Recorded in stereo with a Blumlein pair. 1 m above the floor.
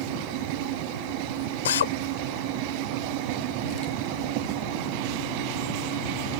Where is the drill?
60° left.